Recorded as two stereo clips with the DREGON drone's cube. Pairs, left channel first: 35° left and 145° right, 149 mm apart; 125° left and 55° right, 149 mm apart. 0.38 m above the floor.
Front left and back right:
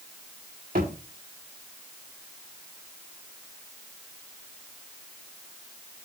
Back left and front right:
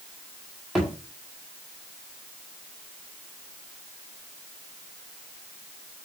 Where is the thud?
145° right, 5 m.